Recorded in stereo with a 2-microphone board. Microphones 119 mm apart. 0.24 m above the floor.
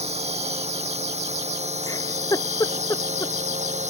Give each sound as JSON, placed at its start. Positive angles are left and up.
{"t": 0.0, "sound": "a drone", "side_deg": -65}
{"t": 1.9, "sound": "a giggle", "side_deg": 30}